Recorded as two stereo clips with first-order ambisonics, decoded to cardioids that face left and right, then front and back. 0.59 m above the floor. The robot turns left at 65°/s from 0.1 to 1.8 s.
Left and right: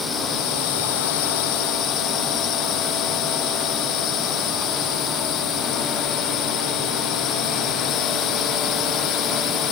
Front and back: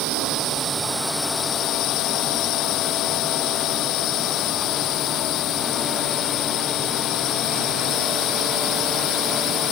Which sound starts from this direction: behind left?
A drone, at 0.0 s.